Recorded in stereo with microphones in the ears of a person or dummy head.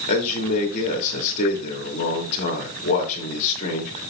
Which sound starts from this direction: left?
A man speaking, at 0.1 s.